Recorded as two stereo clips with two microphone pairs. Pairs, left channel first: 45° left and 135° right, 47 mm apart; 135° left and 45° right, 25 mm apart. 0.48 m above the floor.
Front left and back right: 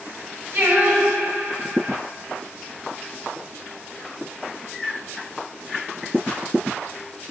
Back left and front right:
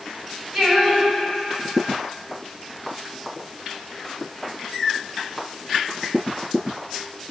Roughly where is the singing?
Behind right.